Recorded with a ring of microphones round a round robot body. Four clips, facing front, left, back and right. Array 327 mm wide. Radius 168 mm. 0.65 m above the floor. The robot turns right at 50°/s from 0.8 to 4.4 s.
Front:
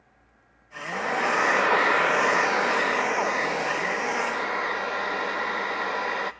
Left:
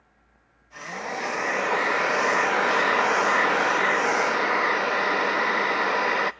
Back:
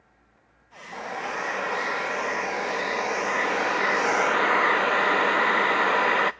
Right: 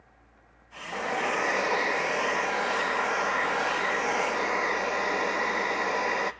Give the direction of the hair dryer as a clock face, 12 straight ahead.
1 o'clock.